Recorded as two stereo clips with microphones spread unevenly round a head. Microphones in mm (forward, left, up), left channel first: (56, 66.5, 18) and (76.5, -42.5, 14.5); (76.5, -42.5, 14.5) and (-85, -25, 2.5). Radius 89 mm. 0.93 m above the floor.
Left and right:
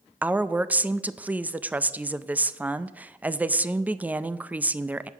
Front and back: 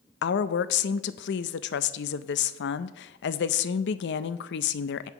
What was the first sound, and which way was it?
A woman speaking, 5° right.